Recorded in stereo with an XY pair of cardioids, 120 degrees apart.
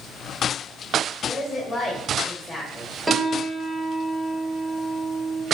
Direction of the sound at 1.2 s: 5° left.